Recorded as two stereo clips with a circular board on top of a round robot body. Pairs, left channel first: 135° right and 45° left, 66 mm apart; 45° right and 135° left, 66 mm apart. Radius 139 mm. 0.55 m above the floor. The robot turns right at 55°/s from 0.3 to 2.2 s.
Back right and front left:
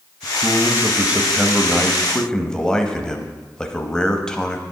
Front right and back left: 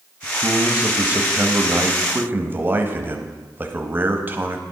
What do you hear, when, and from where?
0.2 s a man speaking: 50° left, 1.0 m; by 4.6 s 155° left, 1.0 m